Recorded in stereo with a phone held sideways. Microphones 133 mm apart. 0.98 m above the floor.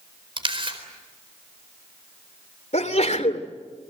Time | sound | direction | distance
0.4 | a camera shutter | 45° right (ahead or behind) | 4 m
2.7 | a sneeze | 60° left (ahead or behind) | 3 m